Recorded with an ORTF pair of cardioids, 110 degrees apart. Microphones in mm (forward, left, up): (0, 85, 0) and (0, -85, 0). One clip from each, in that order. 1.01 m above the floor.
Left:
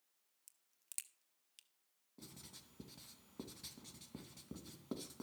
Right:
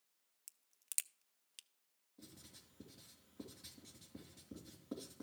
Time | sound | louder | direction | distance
0.5 | a crack | right 7 dB | 30° right | 0.5 m
2.2 | writing | left 3 dB | 55° left | 2.5 m